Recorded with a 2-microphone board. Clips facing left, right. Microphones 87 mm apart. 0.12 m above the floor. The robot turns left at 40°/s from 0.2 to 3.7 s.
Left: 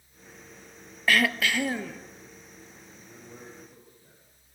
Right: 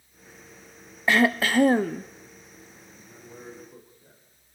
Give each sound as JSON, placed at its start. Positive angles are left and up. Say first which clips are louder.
{"t": 1.1, "sound": "throat clearing", "louder": "right 3 dB", "azimuth_deg": -25, "distance_m": 0.6}
{"t": 2.9, "sound": "a man speaking", "louder": "right 2 dB", "azimuth_deg": 15, "distance_m": 5.0}